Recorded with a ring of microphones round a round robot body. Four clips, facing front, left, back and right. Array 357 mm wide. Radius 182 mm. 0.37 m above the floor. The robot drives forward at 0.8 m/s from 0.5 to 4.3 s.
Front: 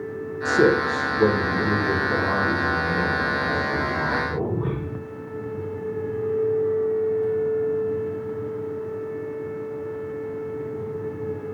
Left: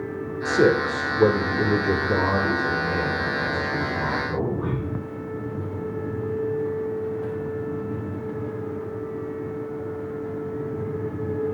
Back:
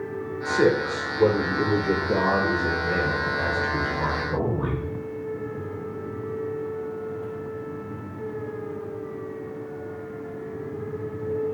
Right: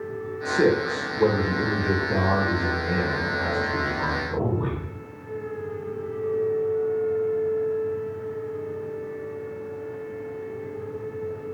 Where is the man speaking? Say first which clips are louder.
Left 2 dB, front 3 dB; 40° left, 1.8 m; by 4.8 s 160° left, 2.5 m.